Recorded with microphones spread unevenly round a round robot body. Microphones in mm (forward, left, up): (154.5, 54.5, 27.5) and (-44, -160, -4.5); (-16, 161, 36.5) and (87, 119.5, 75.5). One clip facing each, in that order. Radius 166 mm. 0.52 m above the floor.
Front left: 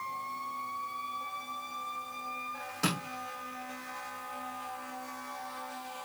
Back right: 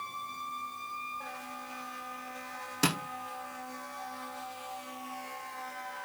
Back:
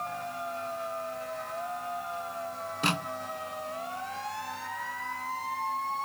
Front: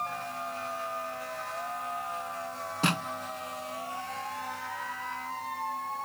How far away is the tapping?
About 5 m.